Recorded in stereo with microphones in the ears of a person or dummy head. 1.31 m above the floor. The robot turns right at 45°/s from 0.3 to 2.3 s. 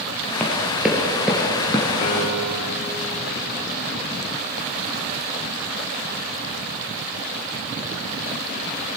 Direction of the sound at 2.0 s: 55° left (ahead or behind).